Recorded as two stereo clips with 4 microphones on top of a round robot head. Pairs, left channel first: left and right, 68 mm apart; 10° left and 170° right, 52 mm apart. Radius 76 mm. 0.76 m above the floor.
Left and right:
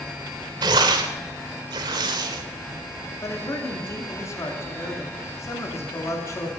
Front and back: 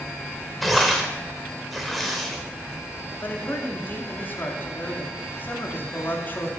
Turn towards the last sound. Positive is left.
turn(degrees=55)